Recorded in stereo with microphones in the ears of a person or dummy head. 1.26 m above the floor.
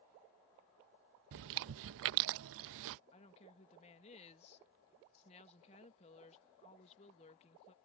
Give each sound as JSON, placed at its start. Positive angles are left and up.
{"t": 1.3, "sound": "chewing", "side_deg": -70}
{"t": 3.1, "sound": "a woman speaking", "side_deg": 30}